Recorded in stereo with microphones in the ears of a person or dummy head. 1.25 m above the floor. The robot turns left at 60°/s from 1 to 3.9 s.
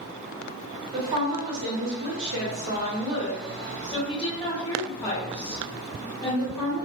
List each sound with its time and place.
0.9 s a woman speaking: 30° right, 1.0 m; by 6.8 s 155° left, 1.0 m